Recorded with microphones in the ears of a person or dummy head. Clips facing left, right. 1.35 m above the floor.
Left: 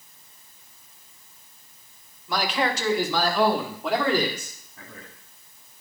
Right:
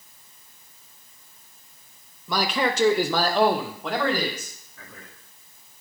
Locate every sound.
2.3 s a man speaking: 80° right, 1.7 m; by 5.1 s 35° left (ahead or behind), 2.5 m